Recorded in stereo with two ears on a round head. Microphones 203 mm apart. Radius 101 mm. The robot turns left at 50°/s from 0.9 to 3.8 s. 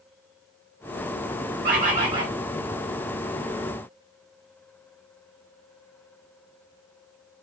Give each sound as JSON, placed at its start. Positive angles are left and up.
{"t": 1.6, "sound": "a bird", "azimuth_deg": -130, "distance_m": 3.5}